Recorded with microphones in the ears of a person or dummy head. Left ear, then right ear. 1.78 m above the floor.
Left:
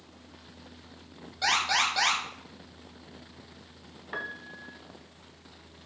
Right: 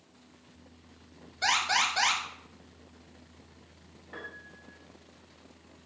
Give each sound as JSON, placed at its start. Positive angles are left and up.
{"t": 1.4, "sound": "an alarm", "side_deg": 20, "distance_m": 4.0}
{"t": 4.1, "sound": "a piano", "side_deg": 50, "distance_m": 0.9}